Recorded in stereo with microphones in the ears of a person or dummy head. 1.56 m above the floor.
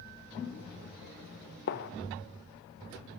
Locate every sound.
1.7 s a gunshot: 50° left (ahead or behind), 0.9 m